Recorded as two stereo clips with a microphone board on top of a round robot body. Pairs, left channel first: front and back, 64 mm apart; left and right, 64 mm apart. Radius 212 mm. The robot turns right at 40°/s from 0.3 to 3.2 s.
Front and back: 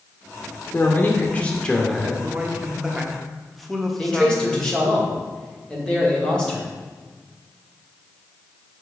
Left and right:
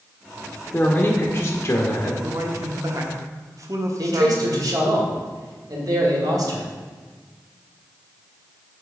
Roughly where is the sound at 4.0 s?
Right.